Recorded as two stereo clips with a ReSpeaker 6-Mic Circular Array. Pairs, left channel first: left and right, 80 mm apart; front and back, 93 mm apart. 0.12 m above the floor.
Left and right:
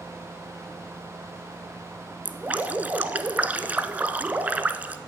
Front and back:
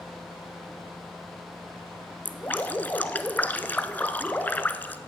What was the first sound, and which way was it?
Dripping, 45° right.